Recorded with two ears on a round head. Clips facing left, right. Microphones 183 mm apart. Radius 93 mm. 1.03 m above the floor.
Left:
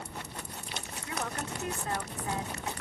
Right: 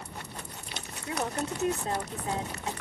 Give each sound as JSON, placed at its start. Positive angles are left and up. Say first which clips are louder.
{"t": 1.1, "sound": "a woman speaking", "louder": "right 5 dB", "side_deg": -25}